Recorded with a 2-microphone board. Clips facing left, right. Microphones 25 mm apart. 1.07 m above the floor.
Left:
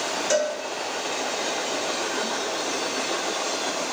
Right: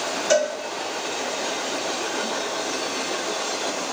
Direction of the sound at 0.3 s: 10° right (ahead or behind).